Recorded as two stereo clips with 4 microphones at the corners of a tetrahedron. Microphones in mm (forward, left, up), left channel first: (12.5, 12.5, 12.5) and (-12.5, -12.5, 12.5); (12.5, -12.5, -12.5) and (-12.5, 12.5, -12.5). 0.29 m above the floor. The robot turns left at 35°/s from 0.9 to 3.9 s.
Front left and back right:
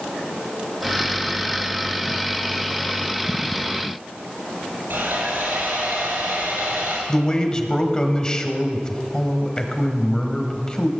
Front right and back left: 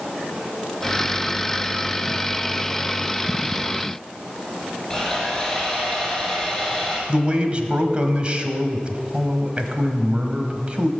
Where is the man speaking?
100° left, 1.3 m.